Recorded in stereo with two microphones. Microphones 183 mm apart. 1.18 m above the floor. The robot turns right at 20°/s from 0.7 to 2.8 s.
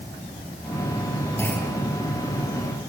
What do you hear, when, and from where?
1.4 s a clunk: 15° left (ahead or behind), 5.5 m; by 1.8 s 5° left (ahead or behind), 5.5 m